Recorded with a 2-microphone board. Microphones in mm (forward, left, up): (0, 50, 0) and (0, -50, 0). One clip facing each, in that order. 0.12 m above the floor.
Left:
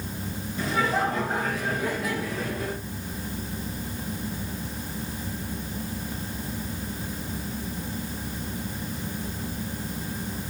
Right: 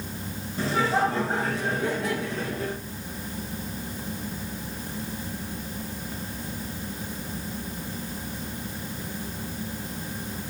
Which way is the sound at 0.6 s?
30° right (ahead or behind).